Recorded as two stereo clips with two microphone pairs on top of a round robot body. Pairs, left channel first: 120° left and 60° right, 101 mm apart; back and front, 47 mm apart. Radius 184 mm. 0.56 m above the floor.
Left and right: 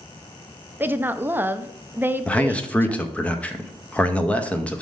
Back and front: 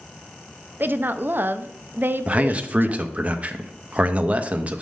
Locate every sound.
0.8 s a woman speaking: 5° left, 0.6 m
2.3 s a man speaking: 55° left, 0.8 m